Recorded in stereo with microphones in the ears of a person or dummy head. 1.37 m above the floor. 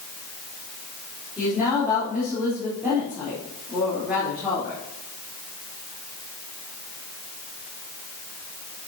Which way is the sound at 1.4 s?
5° right (ahead or behind).